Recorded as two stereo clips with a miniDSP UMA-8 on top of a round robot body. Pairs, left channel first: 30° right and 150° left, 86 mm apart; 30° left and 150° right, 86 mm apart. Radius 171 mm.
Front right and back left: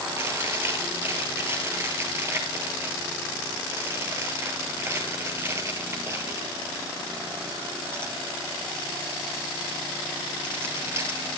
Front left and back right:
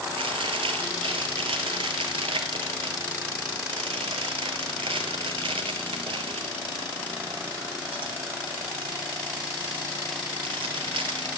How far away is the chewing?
About 1.9 m.